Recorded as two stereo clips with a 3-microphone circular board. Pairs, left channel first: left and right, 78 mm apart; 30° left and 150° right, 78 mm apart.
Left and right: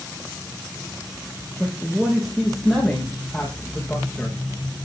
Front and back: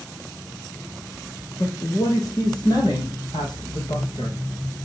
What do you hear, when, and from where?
1.6 s a man speaking: 5° right, 5 m; by 4.4 s 15° left, 5.5 m